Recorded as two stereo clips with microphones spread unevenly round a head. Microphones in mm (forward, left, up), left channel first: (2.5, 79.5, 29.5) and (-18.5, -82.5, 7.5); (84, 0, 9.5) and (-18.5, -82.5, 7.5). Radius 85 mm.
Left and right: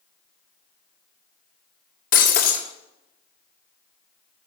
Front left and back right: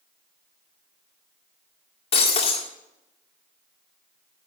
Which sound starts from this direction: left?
Breaking glass, at 2.1 s.